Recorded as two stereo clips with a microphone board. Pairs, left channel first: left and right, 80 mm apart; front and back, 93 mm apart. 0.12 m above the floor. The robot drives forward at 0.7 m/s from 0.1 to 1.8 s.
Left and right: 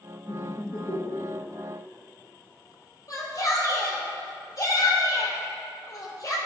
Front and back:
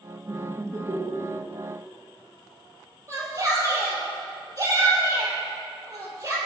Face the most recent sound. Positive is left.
turn(degrees=135)